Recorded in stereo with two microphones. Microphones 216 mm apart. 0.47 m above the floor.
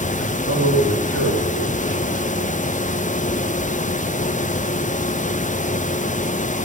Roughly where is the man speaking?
Left.